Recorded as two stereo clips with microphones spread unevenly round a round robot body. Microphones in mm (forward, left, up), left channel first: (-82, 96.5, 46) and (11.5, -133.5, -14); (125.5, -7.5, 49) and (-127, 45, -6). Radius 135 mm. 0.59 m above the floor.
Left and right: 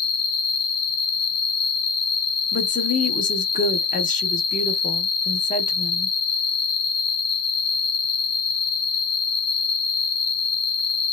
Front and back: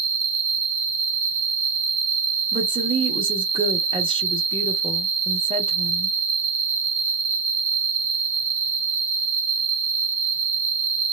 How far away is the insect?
About 1.0 m.